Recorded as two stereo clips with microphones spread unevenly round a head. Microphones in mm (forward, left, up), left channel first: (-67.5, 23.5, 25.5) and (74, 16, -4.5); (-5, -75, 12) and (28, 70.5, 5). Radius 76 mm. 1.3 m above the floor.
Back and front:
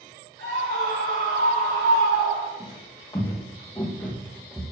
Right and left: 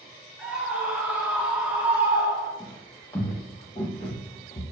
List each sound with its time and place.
0.4 s a scream: 5° right, 3.5 m; by 2.5 s straight ahead, 2 m
2.6 s footsteps: 160° right, 1.9 m; by 4.6 s 105° right, 1.6 m